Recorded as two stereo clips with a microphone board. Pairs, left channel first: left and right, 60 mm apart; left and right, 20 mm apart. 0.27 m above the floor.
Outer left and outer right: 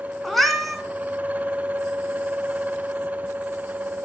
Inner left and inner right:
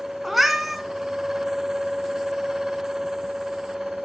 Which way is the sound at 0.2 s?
Centre (ahead or behind).